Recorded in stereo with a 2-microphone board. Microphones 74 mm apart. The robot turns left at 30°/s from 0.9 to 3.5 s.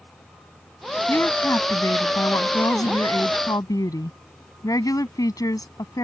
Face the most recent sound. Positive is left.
turn(degrees=75)